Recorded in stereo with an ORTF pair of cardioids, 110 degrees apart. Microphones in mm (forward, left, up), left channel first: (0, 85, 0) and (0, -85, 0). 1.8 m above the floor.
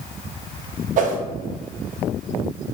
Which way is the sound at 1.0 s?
50° right.